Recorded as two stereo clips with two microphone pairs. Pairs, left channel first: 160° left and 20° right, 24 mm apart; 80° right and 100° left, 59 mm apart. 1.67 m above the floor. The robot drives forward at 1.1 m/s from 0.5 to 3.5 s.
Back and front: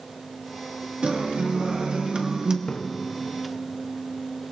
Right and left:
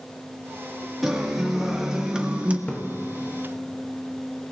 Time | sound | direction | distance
1.0 | a guitar | 10° left | 2.5 m
2.7 | a splash | 150° right | 1.4 m